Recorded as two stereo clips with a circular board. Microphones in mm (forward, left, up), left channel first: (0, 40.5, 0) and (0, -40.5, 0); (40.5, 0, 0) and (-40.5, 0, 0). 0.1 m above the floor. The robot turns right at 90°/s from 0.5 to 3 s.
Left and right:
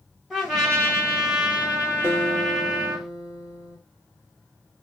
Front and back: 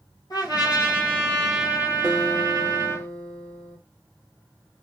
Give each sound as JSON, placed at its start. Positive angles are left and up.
{"t": 0.3, "sound": "a trumpet", "azimuth_deg": 0, "distance_m": 1.3}
{"t": 2.0, "sound": "a guitar", "azimuth_deg": -110, "distance_m": 1.3}